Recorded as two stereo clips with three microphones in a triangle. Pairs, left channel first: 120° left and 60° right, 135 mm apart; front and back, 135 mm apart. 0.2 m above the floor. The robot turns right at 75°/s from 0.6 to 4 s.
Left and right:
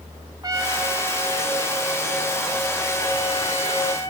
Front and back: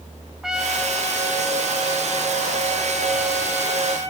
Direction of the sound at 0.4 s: 95° right.